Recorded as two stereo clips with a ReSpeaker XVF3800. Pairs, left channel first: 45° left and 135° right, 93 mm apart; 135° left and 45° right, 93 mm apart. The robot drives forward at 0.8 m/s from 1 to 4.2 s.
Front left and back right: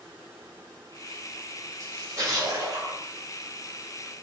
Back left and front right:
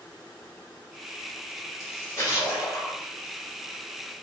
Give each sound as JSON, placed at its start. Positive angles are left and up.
{"t": 1.8, "sound": "a splash", "azimuth_deg": 180, "distance_m": 1.6}